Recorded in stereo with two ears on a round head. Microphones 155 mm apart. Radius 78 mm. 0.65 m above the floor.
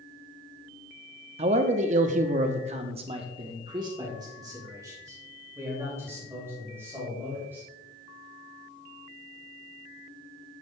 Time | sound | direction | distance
1.4 | a man speaking | 35° right (ahead or behind) | 0.8 m